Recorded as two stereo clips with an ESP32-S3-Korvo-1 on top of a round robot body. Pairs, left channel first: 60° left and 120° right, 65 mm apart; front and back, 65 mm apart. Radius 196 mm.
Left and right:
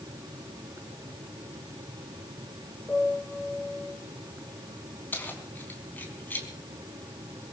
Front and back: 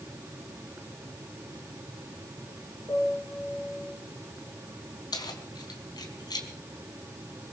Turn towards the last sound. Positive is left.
turn(degrees=-5)